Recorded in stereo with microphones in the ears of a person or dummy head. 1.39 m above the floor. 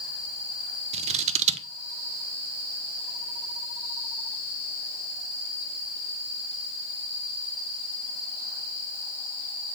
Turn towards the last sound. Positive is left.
turn(degrees=-25)  # may be behind; listen again after turning